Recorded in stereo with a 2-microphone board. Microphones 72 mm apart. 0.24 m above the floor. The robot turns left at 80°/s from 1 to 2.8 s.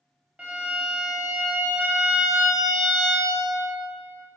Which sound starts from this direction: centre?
A violin, at 0.4 s.